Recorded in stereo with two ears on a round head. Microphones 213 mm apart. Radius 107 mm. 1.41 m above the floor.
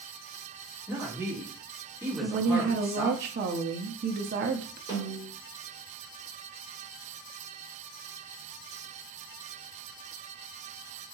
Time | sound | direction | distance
0.9 | a woman speaking | 10° right (ahead or behind) | 2 m
2.2 | a woman speaking | 45° right (ahead or behind) | 0.5 m
4.9 | a snare drum | 20° right (ahead or behind) | 3 m